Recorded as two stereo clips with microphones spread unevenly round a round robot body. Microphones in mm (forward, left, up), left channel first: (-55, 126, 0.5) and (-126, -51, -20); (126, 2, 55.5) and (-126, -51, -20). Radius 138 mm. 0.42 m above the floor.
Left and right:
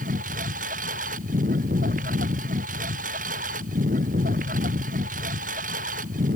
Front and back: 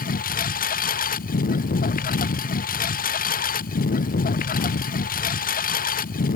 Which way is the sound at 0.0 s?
45° right.